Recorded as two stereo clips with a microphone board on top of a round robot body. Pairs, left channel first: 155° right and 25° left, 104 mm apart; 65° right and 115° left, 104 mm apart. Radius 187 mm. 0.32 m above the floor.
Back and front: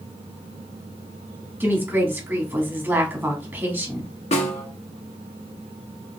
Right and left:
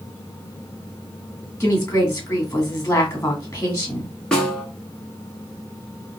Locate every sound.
1.6 s a woman speaking: 20° right, 1.6 m
4.3 s a snare drum: 150° right, 0.7 m